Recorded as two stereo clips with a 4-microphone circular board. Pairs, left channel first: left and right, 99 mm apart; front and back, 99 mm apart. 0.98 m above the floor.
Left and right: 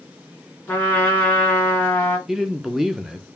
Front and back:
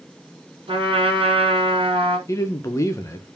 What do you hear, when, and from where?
0.7 s a trumpet: 160° left, 2 m
2.3 s a man speaking: 5° right, 0.6 m